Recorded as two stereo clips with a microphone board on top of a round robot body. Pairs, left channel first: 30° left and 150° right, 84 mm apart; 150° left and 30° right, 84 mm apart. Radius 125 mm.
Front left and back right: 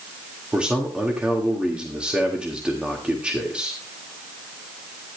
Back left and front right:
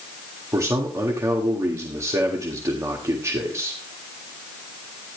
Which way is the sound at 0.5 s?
75° right.